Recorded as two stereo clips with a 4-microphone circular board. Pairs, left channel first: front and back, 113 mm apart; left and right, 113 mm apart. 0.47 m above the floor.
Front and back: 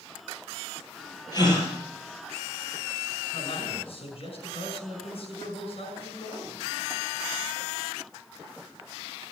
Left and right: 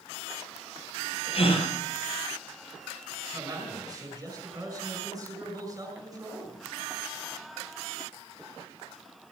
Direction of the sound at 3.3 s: 35° right.